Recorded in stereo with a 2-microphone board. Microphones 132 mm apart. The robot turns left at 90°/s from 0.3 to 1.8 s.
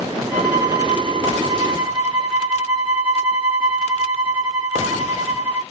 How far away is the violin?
About 2 m.